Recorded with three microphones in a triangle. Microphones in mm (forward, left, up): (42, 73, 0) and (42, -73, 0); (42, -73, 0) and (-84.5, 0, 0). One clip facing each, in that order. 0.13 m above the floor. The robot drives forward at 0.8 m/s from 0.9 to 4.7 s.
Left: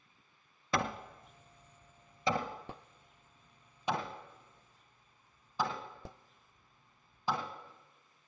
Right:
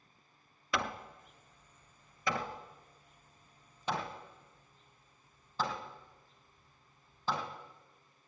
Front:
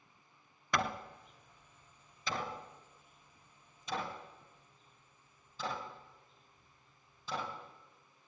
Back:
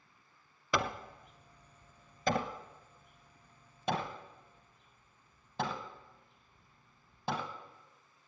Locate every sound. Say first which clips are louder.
0.7 s hammering: left 2 dB, back 1 dB; 70° left, 1.0 m; by 7.5 s 170° left, 3 m